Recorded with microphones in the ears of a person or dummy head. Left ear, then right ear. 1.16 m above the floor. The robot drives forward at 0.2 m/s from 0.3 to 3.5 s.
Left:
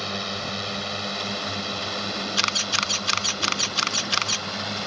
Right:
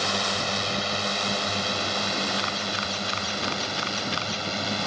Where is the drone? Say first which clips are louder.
Right 4 dB; 30° right (ahead or behind); by 4.9 s 25° right (ahead or behind).